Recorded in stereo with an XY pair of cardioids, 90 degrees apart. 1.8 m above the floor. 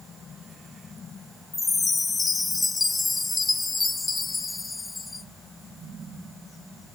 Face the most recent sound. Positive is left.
turn(degrees=30)